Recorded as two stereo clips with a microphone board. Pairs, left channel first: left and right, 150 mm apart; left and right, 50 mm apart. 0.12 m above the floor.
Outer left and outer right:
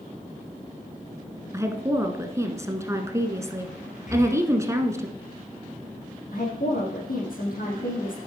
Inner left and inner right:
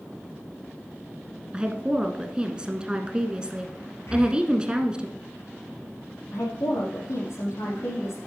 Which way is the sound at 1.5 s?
20° right (ahead or behind).